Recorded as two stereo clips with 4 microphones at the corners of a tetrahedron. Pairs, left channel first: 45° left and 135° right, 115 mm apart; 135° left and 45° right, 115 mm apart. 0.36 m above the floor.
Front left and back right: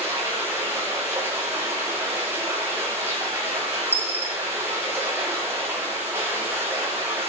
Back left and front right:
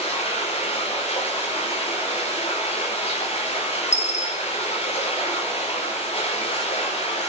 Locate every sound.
0.0 s running water: 155° left, 8.5 m
3.9 s a dropped coin: 120° left, 6 m